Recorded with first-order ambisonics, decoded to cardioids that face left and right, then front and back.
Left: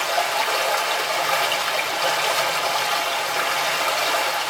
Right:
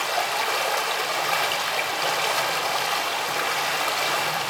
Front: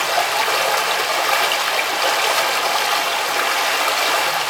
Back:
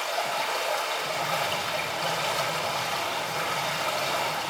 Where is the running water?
5° left, 1.6 m.